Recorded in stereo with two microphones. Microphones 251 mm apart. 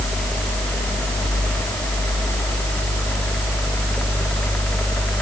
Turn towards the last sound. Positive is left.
No sound to turn to.